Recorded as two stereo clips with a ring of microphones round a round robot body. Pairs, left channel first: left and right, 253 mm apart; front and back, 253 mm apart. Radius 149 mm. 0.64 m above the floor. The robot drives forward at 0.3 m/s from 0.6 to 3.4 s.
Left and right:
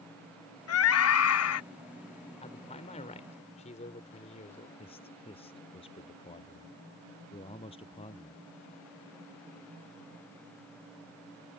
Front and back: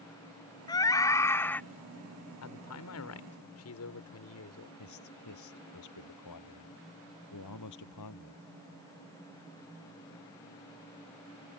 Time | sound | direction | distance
0.7 | a scream | 75° left | ?
2.4 | a man speaking | 20° left | ?
4.8 | a man speaking | 20° left | ?